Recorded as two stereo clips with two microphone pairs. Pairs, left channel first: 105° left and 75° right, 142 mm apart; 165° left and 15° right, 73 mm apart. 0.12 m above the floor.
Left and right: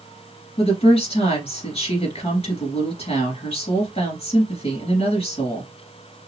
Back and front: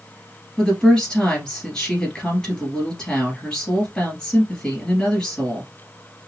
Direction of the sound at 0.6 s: 90° left.